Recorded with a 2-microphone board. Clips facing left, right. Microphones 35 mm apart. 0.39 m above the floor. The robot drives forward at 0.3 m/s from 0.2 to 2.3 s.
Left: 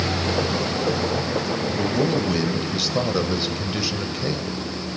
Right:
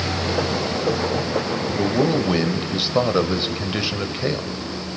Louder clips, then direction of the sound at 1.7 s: Right 3 dB; 20° right (ahead or behind).